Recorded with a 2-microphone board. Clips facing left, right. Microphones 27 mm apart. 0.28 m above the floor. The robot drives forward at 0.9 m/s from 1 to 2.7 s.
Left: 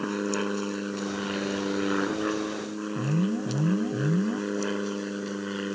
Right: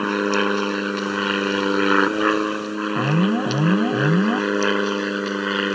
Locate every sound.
0.0 s an aircraft: 45° right (ahead or behind); by 5.8 s 50° right (ahead or behind)
3.0 s an alarm: 75° right (ahead or behind)